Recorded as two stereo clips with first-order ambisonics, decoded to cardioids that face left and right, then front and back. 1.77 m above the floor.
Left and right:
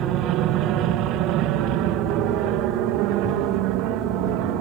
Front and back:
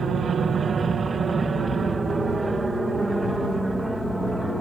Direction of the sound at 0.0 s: 120° right.